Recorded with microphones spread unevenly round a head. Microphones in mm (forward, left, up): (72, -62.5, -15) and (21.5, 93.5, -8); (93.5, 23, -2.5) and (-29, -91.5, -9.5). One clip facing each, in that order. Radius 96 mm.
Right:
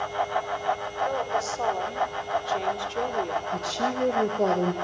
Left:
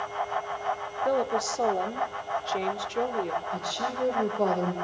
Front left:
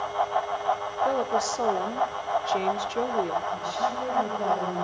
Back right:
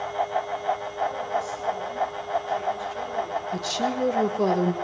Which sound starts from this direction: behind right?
A woman speaking, at 3.5 s.